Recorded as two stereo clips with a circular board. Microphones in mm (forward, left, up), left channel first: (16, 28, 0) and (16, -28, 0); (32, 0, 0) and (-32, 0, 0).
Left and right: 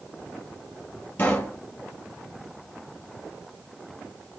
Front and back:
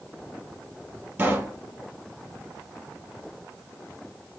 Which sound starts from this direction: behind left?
A pop, at 1.2 s.